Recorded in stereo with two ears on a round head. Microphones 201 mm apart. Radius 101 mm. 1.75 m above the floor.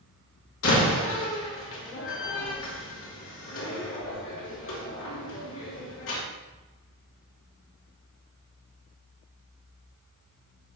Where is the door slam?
65° left (ahead or behind), 3 m.